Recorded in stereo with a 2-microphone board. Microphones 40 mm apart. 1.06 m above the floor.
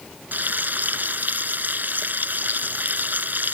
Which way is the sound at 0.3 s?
45° right (ahead or behind).